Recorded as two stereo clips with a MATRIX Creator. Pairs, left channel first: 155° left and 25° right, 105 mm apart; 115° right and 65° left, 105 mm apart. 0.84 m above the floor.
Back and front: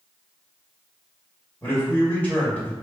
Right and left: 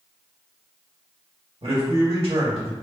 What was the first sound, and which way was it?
A man speaking, 80° left.